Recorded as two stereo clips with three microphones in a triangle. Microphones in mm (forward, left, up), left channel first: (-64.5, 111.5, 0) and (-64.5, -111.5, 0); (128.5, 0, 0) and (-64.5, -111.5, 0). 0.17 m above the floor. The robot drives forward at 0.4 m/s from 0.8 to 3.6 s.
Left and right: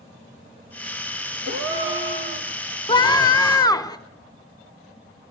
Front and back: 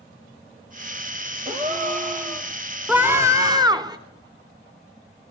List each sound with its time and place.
1.4 s a gasp: 95° right, 2.5 m; by 2.5 s 105° right, 2.5 m
2.9 s a scream: 135° left, 1.1 m; by 4.0 s 150° left, 1.2 m